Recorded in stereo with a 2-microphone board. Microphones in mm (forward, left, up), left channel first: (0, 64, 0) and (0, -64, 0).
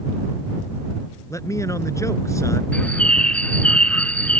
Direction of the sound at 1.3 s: 25° left (ahead or behind).